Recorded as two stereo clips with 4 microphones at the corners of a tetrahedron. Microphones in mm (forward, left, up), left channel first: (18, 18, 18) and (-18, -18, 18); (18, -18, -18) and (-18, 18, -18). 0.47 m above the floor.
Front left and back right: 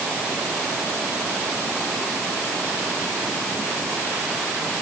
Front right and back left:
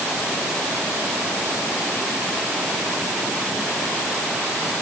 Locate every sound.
Only background noise.